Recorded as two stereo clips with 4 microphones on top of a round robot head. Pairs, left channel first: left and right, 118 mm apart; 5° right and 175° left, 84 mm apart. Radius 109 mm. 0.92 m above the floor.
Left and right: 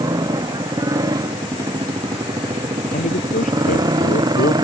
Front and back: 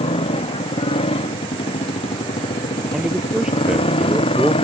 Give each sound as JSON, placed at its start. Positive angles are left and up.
{"t": 0.0, "sound": "a motorcycle", "azimuth_deg": -25}
{"t": 2.9, "sound": "a man speaking", "azimuth_deg": 95}